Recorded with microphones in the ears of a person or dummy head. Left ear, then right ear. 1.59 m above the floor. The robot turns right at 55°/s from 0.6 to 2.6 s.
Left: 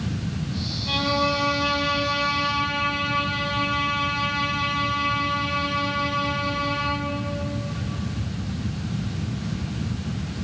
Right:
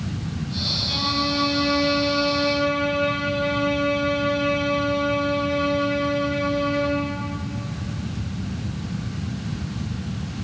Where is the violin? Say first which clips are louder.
Even; 95° left, 3.5 m; by 7.2 s 170° right, 3.5 m.